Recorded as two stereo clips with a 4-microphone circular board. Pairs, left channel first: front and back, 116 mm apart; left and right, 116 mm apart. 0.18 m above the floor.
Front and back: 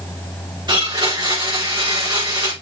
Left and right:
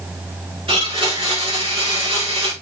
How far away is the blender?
About 6 m.